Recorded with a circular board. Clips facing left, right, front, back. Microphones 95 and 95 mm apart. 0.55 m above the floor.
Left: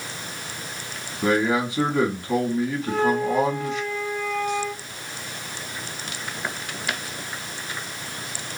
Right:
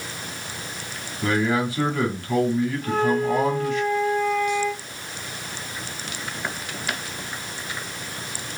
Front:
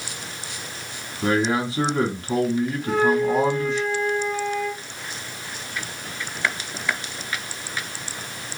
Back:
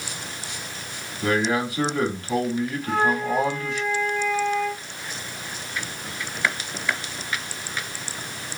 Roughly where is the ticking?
I don't hear ticking.